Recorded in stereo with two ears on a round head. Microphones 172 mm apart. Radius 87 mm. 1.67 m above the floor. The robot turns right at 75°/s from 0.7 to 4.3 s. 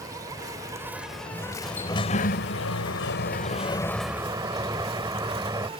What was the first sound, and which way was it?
An insect, 35° right.